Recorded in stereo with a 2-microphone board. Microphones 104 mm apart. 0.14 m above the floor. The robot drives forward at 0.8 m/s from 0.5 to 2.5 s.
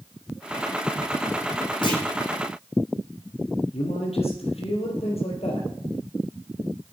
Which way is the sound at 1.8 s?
50° left (ahead or behind).